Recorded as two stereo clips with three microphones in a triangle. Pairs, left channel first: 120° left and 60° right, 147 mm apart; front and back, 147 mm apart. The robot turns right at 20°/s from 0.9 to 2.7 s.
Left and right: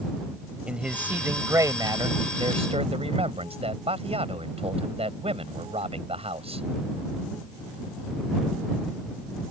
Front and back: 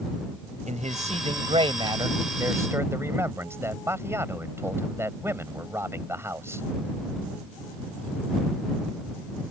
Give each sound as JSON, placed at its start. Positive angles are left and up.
{"t": 0.7, "sound": "a man speaking", "azimuth_deg": -145}